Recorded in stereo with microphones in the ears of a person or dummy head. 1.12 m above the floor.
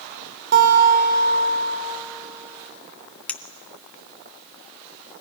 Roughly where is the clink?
Centre.